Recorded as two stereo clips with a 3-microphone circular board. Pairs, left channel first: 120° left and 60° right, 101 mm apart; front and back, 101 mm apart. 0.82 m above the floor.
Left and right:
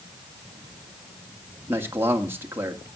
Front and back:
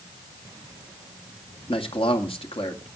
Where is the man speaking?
5° left, 2 m.